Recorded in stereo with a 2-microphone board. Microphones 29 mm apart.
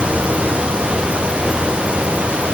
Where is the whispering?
No whispering in this recording.